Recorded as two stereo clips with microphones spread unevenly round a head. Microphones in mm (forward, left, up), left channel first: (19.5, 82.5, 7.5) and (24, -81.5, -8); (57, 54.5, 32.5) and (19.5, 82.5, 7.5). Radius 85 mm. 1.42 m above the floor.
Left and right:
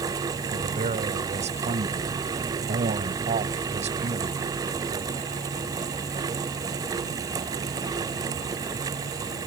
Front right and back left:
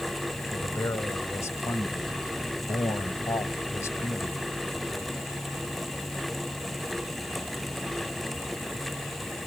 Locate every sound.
0.5 s a man speaking: 40° right